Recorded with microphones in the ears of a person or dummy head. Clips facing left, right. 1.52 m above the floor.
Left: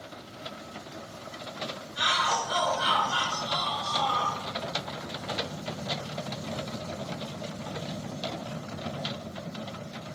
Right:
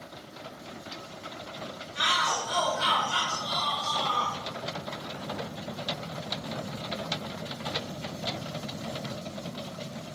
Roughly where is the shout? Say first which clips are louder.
Left 1 dB; right.